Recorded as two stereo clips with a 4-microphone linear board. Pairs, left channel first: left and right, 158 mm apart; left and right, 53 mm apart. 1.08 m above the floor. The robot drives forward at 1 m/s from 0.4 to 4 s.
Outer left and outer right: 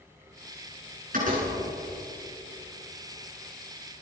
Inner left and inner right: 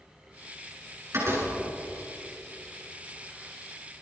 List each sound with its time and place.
1.1 s a door slam: 60° right (ahead or behind), 9 m